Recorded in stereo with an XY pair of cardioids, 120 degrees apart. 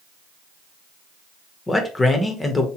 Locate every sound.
1.7 s a man speaking: 20° left, 1.1 m